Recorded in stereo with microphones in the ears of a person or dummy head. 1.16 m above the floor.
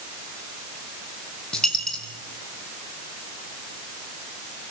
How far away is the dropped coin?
About 4.5 m.